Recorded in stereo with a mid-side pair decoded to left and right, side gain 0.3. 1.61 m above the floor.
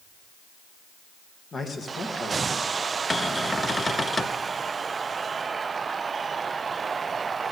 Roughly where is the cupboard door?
Ahead left.